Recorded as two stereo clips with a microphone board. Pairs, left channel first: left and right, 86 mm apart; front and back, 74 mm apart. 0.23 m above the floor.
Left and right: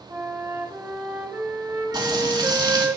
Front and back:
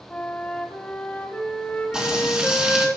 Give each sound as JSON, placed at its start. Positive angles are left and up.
{"t": 0.1, "sound": "a flute", "azimuth_deg": -55, "distance_m": 1.3}
{"t": 1.9, "sound": "frying", "azimuth_deg": -100, "distance_m": 3.0}